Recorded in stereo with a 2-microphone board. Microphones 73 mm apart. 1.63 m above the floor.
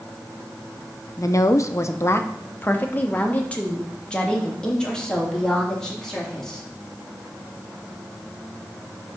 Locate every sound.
1.2 s a woman speaking: 45° left (ahead or behind), 0.7 m; by 6.7 s 10° left (ahead or behind), 3 m